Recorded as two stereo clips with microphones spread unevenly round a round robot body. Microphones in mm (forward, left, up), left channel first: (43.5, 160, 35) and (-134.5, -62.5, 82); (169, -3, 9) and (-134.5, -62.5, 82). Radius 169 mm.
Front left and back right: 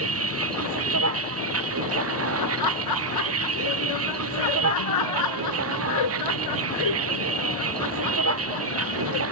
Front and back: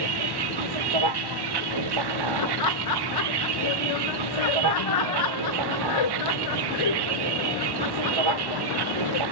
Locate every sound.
0.0 s a vehicle: 165° right
2.4 s laughter: 35° left